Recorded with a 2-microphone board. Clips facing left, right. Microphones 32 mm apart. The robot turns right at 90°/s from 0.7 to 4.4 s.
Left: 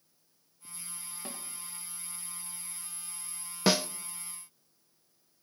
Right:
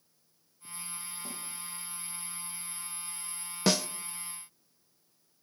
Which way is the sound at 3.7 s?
10° left (ahead or behind).